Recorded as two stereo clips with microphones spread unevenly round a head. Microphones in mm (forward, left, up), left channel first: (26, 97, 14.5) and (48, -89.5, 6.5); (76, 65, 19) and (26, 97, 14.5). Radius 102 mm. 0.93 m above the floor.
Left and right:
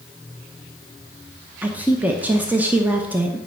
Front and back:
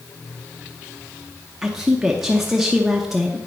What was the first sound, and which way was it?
A woman speaking, 145° right.